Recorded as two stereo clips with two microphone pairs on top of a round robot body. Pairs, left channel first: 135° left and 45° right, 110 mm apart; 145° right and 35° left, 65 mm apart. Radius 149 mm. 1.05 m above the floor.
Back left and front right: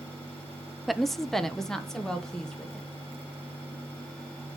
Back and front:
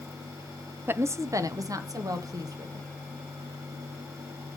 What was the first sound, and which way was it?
A woman speaking, 35° left.